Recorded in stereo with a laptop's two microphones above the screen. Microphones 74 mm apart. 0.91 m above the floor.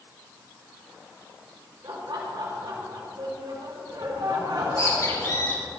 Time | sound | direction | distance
1.8 | laughter | 80° right | 4.5 m
4.5 | a bird | 45° left (ahead or behind) | 5 m